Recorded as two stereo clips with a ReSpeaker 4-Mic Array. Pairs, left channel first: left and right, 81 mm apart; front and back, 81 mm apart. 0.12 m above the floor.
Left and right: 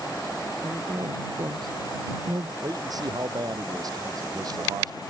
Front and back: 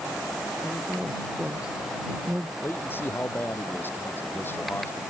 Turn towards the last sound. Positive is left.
turn(degrees=-60)